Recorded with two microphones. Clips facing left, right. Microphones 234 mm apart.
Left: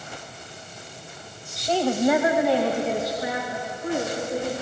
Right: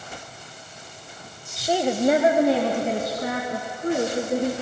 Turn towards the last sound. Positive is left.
turn(degrees=-60)  # may be behind; listen again after turning